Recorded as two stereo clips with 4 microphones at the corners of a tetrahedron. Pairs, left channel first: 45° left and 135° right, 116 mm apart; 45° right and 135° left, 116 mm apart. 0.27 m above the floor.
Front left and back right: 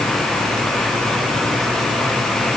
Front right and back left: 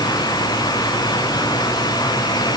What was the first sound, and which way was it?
Only background noise.